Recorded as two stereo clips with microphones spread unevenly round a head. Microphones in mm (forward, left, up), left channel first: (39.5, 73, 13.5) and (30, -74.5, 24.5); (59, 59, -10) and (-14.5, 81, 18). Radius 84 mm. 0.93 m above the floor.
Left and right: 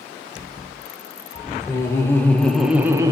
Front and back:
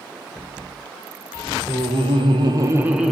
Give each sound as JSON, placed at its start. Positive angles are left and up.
{"t": 1.7, "sound": "laughter", "azimuth_deg": 155, "distance_m": 1.0}